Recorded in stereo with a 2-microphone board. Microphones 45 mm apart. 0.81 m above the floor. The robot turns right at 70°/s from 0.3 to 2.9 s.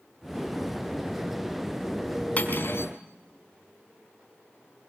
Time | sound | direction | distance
2.4 | cutlery clinking | 30° left | 4.5 m